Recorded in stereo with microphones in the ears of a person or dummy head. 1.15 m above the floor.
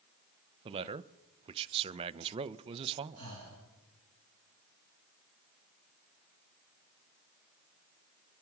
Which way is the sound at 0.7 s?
35° right (ahead or behind).